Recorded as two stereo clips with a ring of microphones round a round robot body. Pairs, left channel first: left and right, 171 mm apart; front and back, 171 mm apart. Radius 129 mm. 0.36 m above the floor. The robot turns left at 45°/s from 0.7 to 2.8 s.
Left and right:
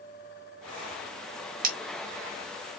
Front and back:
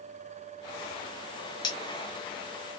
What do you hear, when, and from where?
1.6 s cutlery clinking: 65° right, 0.7 m; by 1.8 s 70° right, 0.7 m